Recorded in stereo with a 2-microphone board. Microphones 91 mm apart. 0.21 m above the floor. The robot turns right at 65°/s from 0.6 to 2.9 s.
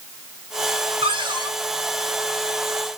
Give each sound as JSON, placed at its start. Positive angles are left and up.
{"t": 1.0, "sound": "a cupboard door", "azimuth_deg": -80, "distance_m": 7.5}